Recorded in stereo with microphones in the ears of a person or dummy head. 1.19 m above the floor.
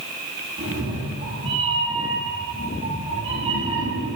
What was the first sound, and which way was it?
A cat meowing, 30° right (ahead or behind).